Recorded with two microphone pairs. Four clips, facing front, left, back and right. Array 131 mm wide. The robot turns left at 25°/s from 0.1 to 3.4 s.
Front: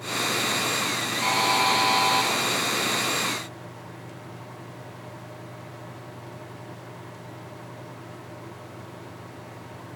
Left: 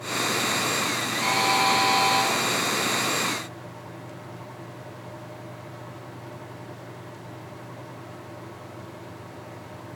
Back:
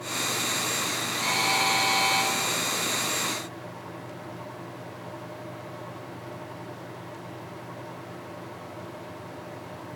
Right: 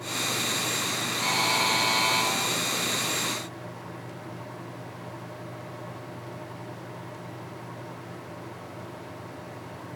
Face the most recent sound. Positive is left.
turn(degrees=-40)